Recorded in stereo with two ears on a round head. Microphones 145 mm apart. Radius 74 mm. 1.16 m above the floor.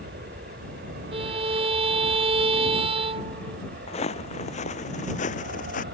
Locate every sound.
0.0 s an aircraft: 60° right (ahead or behind)
1.1 s a violin: 35° right (ahead or behind)
3.9 s footsteps: 40° left (ahead or behind); by 5.8 s 55° left (ahead or behind)